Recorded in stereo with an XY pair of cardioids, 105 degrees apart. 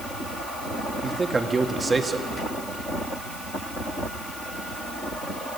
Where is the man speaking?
25° right, 1.8 m.